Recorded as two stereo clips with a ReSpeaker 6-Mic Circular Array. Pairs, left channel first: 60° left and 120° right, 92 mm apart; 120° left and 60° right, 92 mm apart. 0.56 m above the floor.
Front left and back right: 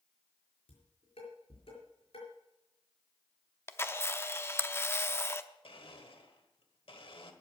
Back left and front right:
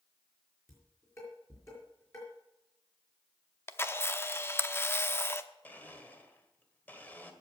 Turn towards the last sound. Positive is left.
turn(degrees=50)